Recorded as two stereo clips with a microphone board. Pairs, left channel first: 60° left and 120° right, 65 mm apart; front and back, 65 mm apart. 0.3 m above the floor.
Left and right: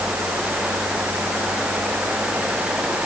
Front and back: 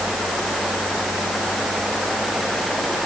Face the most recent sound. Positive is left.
No sound to turn to.